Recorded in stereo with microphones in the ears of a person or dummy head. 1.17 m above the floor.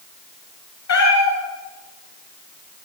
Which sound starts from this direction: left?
A cat meowing, at 0.9 s.